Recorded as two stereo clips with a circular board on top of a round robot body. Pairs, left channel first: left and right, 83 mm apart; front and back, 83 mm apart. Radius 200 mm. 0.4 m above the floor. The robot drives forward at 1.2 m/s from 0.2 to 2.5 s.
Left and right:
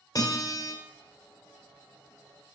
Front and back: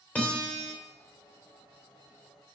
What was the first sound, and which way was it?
A guitar, 70° left.